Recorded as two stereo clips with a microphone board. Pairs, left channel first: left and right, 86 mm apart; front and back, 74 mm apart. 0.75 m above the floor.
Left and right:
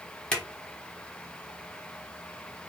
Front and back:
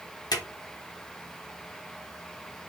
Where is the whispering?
I don't hear whispering.